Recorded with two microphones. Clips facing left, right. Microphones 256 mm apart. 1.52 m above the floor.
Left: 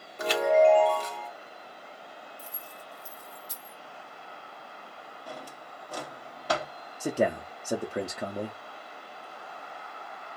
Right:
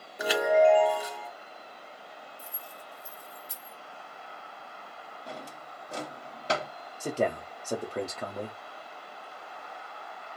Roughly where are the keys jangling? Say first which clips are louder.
Left 1 dB; right.